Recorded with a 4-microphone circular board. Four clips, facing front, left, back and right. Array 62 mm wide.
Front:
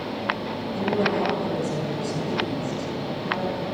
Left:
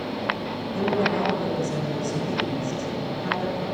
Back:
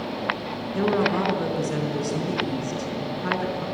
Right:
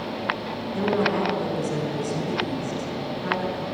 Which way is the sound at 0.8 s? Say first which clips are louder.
Right 1 dB, back 2 dB; 170° right.